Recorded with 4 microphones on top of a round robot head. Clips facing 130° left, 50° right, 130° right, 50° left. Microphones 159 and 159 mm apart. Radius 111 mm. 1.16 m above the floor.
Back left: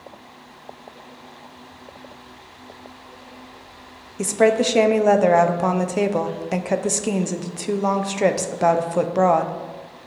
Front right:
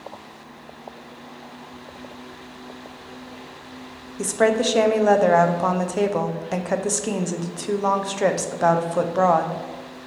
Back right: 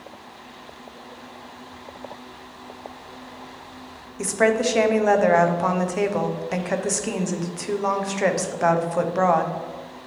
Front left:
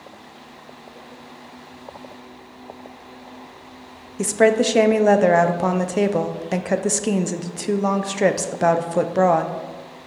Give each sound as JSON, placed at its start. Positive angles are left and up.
{"t": 4.2, "sound": "a woman speaking", "azimuth_deg": 65, "distance_m": 0.5}